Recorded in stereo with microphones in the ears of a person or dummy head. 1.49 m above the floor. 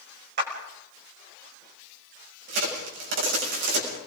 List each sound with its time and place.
0.4 s a clap: 55° right (ahead or behind), 6 m
2.5 s a crack: 65° right (ahead or behind), 7.5 m